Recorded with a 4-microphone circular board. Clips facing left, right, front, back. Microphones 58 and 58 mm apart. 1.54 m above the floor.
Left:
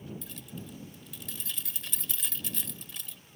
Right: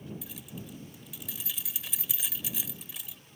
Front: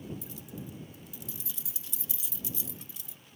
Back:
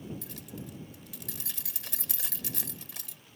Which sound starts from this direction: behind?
Keys jangling, at 0.2 s.